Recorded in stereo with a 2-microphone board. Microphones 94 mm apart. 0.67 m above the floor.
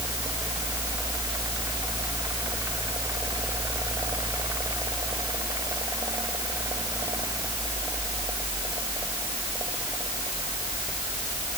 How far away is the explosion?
I don't hear an explosion.